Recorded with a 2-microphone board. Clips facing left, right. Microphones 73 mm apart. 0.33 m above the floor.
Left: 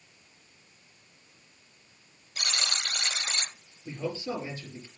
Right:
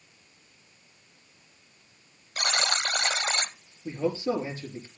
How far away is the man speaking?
About 5.5 m.